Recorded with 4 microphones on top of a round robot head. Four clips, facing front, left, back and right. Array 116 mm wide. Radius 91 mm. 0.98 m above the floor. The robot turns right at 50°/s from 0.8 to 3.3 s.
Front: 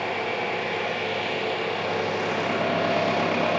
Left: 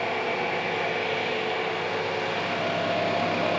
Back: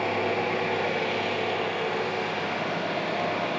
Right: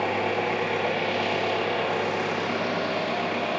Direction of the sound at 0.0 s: 115° right.